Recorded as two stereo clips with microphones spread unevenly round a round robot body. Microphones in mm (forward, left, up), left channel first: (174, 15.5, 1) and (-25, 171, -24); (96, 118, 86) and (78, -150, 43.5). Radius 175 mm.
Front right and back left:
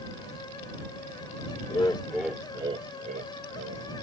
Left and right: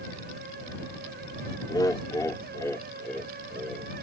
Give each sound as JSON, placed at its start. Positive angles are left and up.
{"t": 1.7, "sound": "laughter", "azimuth_deg": 10}